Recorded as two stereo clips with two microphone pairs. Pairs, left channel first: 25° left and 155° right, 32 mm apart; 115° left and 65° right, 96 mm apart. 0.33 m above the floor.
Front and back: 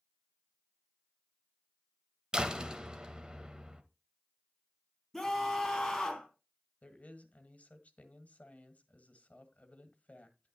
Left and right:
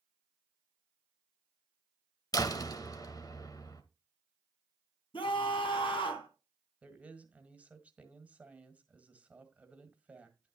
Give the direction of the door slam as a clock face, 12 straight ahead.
7 o'clock.